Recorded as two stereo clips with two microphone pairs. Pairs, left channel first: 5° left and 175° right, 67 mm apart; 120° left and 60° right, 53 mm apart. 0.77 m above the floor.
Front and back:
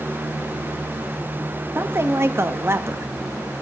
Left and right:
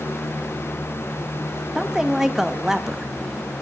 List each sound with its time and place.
1.8 s a woman speaking: 140° right, 0.5 m